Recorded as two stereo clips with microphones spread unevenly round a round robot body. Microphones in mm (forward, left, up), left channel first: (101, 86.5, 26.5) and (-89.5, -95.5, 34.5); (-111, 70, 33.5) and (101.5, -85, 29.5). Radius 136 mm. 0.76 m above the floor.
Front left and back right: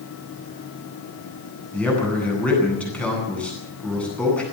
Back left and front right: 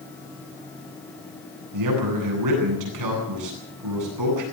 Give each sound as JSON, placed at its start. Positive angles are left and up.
{"t": 1.7, "sound": "a man speaking", "azimuth_deg": -40, "distance_m": 9.5}